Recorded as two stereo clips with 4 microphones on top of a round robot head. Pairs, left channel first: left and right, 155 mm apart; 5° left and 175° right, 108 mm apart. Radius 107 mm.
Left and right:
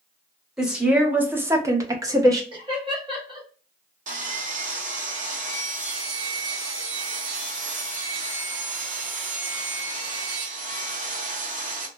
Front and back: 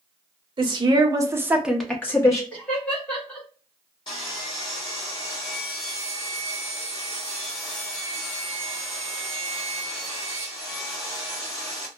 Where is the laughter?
65° right, 1.2 m.